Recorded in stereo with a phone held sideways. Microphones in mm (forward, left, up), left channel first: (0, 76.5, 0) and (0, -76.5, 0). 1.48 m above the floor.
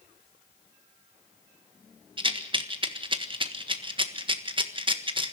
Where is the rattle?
35° right (ahead or behind), 1.6 m.